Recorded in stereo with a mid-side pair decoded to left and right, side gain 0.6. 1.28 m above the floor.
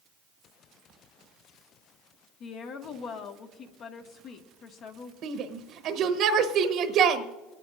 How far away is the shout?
About 1.1 m.